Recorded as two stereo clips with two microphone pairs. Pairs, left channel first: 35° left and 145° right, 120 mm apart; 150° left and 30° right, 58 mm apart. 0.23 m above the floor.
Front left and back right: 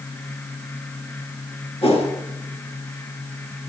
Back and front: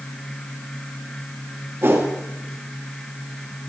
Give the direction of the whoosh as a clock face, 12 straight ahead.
12 o'clock.